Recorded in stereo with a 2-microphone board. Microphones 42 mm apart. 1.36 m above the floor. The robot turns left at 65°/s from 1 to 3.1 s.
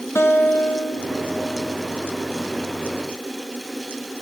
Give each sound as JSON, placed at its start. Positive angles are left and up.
{"t": 0.1, "sound": "a guitar", "azimuth_deg": 80, "distance_m": 1.1}